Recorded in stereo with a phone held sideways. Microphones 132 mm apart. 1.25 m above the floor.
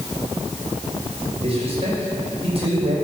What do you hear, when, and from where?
1.4 s a man speaking: 45° right (ahead or behind), 6 m